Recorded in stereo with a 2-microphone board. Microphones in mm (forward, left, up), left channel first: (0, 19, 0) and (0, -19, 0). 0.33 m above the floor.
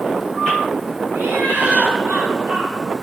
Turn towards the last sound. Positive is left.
turn(degrees=-70)  # may be behind; listen again after turning